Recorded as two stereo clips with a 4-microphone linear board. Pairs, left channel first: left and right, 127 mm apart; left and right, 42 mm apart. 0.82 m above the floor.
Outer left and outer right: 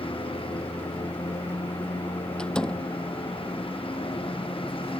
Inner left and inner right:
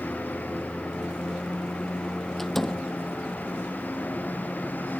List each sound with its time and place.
0.0 s a lawn mower: 50° left (ahead or behind)
2.4 s a door slam: 5° left (ahead or behind)